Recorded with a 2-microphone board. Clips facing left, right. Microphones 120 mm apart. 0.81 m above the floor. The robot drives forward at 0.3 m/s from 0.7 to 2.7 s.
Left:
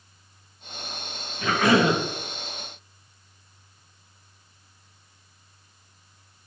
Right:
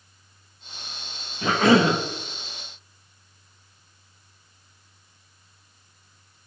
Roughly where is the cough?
Right.